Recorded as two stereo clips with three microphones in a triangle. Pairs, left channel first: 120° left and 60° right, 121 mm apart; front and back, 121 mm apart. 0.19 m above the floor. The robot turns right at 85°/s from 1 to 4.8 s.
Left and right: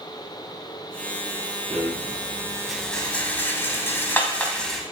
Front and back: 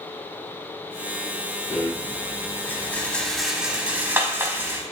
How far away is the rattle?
About 0.7 m.